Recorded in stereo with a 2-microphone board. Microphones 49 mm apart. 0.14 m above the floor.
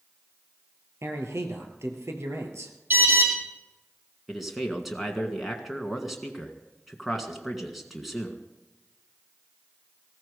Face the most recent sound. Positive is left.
turn(degrees=0)  # may be behind; listen again after turning